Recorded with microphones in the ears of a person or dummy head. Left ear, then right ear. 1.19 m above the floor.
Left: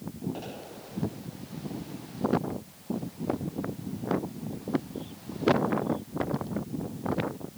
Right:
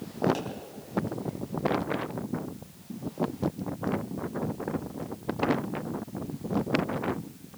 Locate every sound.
0.3 s a pop: 80° right, 4 m